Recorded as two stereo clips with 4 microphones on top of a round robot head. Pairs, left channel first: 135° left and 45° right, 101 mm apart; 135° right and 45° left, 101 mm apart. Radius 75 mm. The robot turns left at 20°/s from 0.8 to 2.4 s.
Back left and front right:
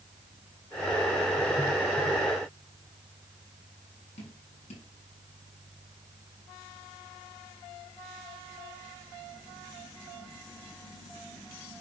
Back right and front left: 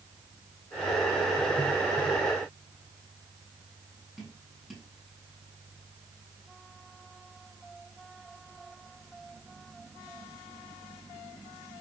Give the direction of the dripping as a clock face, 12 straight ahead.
7 o'clock.